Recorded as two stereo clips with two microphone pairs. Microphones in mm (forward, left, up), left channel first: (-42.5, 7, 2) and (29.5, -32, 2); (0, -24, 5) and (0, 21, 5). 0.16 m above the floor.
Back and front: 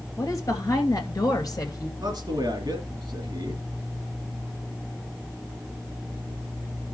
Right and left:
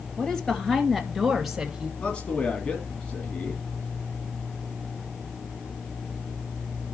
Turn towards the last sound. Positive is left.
turn(degrees=-45)